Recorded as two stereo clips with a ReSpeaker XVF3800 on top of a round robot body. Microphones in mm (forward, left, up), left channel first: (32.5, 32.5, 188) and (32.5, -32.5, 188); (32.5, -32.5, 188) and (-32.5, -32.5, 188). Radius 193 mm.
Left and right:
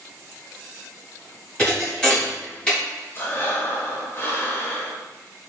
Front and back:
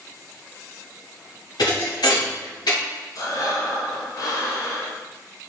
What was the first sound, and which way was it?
A thud, 10° left.